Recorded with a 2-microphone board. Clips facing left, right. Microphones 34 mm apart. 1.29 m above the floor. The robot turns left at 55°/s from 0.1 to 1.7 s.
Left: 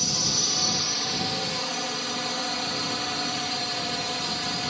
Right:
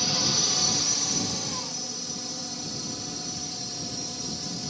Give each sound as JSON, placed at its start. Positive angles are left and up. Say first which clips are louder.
{"t": 0.0, "sound": "a drone", "louder": "right 1 dB", "azimuth_deg": -165}